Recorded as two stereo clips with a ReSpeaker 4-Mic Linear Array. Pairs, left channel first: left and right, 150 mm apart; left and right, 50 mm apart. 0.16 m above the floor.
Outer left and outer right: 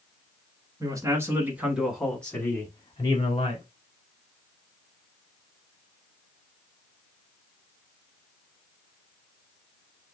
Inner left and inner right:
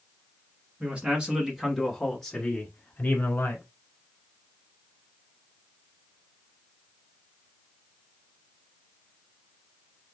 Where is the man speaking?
25° right (ahead or behind), 1.3 m; by 3.6 s 40° left (ahead or behind), 1.3 m.